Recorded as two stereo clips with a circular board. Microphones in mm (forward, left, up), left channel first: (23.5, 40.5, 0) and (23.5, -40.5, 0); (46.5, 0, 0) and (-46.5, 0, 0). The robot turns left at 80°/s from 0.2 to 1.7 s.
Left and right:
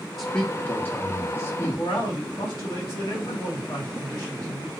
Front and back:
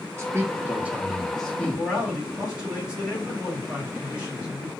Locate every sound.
0.2 s a man speaking: 175° left, 0.7 m; by 1.8 s 55° left, 0.7 m
1.7 s a man speaking: 100° left, 1.7 m